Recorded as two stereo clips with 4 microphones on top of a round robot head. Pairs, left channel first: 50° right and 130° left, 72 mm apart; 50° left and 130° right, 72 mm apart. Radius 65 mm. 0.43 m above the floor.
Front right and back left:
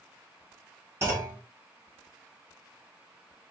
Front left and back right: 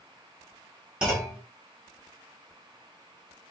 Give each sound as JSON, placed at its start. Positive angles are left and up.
{"t": 1.0, "sound": "a clunk", "azimuth_deg": 160, "distance_m": 1.3}